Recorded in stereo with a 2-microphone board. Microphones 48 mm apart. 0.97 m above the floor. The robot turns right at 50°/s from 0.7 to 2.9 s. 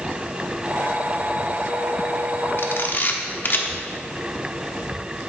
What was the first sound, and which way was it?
A camera shutter, 60° left (ahead or behind).